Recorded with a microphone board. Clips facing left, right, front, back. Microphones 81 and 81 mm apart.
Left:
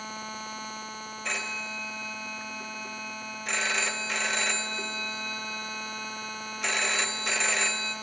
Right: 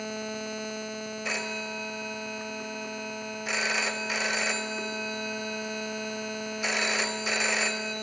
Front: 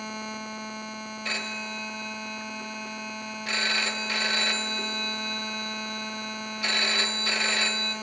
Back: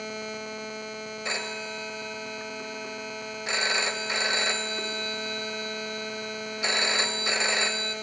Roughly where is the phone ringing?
Behind.